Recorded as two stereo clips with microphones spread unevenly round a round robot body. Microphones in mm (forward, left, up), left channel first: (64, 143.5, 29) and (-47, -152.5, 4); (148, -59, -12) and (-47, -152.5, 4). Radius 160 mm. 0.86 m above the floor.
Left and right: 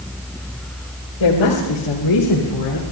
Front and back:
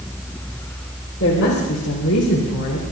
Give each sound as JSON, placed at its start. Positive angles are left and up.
{"t": 1.2, "sound": "a woman speaking", "azimuth_deg": 80, "distance_m": 3.5}